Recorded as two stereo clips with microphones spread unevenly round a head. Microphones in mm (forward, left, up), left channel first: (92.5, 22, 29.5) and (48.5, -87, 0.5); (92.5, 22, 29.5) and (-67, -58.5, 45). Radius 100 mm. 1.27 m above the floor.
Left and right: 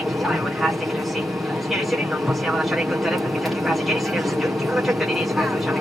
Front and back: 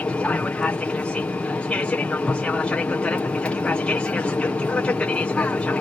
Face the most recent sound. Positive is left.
turn(degrees=-45)